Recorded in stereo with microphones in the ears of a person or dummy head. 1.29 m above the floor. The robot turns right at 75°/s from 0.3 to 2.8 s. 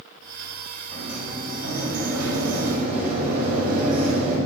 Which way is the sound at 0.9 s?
170° left.